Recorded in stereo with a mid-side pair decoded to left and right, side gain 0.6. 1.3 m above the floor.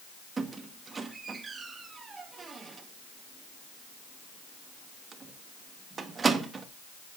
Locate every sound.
0.4 s a squeak: 30° right, 1.4 m